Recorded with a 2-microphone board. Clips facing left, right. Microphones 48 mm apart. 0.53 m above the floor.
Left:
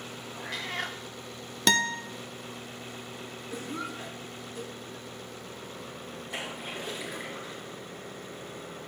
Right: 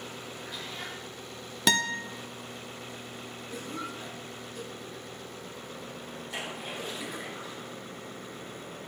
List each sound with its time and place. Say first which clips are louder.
0.4 s a cat meowing: left 8 dB; 80° left, 1.0 m
1.7 s a guitar: left 1 dB; 5° right (ahead or behind), 0.8 m
3.5 s a cough: left 2 dB; 5° left (ahead or behind), 4.5 m
6.3 s a splash: even; centre (ahead or behind), 6 m